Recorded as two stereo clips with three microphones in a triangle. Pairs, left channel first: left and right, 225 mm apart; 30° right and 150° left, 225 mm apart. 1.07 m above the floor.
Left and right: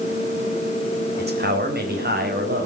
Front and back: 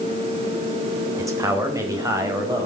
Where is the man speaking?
135° right, 4 m.